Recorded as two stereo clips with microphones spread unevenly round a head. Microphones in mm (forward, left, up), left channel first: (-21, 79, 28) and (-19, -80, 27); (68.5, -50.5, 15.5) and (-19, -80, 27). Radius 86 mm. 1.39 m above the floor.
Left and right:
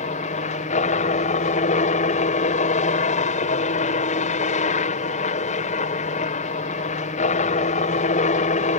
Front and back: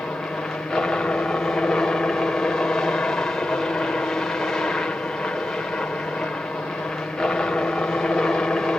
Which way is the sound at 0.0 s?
95° left.